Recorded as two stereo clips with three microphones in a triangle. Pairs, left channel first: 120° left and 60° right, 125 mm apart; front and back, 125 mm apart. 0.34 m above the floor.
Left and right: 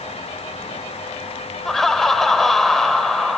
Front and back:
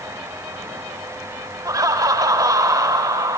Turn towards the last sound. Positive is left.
turn(degrees=-155)